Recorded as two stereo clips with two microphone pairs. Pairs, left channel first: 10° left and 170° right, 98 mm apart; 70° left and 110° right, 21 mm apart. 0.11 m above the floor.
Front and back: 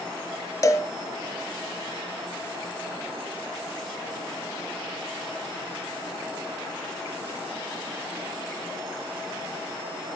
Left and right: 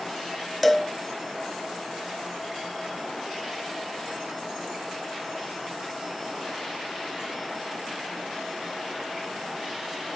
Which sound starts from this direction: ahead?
A cowbell, at 0.6 s.